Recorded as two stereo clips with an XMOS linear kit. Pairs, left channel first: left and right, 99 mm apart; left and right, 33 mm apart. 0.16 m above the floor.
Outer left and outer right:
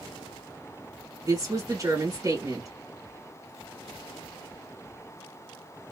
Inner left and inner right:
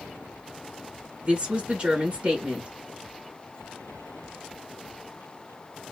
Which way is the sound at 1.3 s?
40° right (ahead or behind).